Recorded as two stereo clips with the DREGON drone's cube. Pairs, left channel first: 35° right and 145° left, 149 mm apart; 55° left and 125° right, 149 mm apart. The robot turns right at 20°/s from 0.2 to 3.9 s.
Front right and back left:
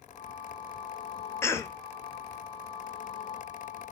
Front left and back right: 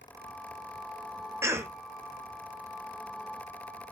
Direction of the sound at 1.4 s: 80° right.